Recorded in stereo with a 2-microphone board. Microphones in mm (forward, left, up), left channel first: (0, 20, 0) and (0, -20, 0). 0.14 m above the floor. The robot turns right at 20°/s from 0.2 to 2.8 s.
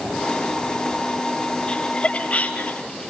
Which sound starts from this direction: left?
Laughter, at 1.7 s.